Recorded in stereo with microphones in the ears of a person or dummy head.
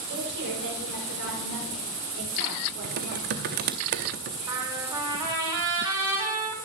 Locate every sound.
0.1 s a woman speaking: 60° right (ahead or behind), 5.5 m; by 3.8 s 75° right (ahead or behind), 4.5 m
2.8 s typing on a keyboard: 40° right (ahead or behind), 0.7 m
4.5 s a trumpet: 20° right (ahead or behind), 4 m